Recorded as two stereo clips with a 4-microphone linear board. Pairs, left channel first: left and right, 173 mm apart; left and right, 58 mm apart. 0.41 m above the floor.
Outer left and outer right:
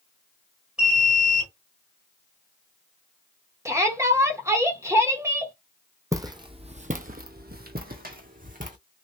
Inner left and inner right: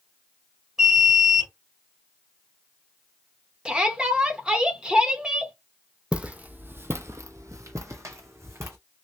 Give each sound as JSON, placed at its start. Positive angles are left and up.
{"t": 0.8, "sound": "an alarm", "side_deg": -5, "distance_m": 2.0}
{"t": 3.6, "sound": "a shout", "side_deg": -15, "distance_m": 0.9}
{"t": 6.1, "sound": "footsteps", "side_deg": -20, "distance_m": 0.9}